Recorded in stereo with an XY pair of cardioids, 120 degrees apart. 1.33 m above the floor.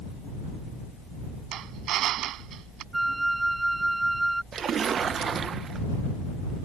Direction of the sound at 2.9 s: 15° right.